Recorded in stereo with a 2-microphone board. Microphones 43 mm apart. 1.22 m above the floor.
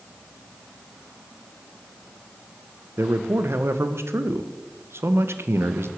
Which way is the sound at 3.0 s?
70° right (ahead or behind).